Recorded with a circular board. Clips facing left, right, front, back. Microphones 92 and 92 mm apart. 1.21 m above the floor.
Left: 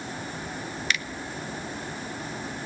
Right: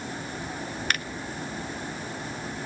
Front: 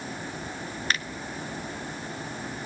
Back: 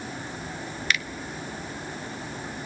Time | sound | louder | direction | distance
0.9 | a finger snap | even, back 1 dB | 50° right | 0.9 m